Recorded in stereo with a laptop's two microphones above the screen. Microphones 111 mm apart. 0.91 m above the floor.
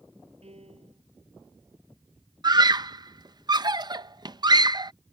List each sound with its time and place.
0.4 s a piano: 70° right (ahead or behind)
2.4 s a scream: 40° right (ahead or behind)